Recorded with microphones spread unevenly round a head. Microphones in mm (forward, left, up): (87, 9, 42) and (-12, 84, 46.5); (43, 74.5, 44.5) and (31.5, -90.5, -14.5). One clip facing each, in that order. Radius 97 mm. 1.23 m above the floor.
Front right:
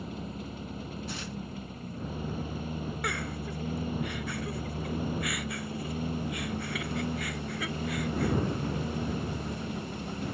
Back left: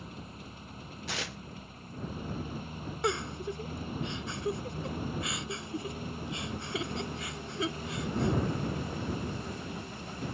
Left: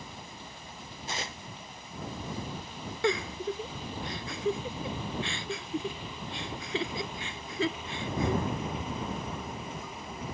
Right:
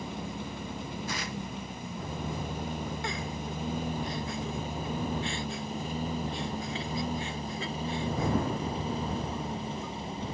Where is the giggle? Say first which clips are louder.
Back left 3 dB, left 6 dB; 80° left.